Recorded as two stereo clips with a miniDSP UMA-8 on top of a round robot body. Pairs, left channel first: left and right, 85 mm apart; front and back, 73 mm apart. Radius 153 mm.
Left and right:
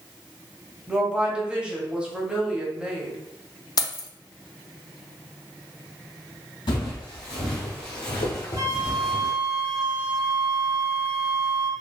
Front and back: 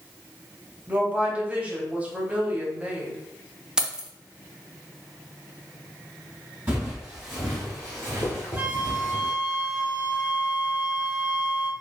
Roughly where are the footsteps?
Left.